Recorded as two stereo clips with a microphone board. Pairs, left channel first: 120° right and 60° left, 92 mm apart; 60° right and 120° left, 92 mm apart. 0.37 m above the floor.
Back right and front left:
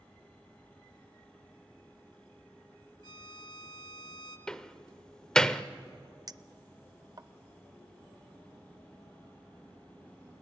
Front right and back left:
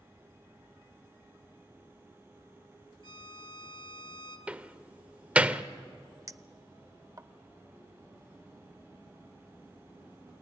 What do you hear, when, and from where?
3.0 s a violin: 90° right, 1.6 m
4.5 s a door slam: 170° left, 0.7 m
6.3 s a clink: 80° left, 0.5 m